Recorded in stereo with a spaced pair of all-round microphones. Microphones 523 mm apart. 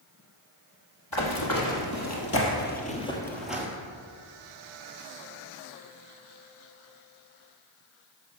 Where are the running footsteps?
45° left (ahead or behind), 2 m; by 3.7 s 5° right (ahead or behind), 1.5 m.